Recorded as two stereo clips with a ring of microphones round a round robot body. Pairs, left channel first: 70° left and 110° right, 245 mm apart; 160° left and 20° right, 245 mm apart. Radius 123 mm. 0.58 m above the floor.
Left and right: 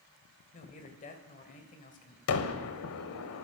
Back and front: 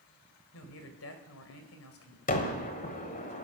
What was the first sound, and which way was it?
A man speaking, 125° left.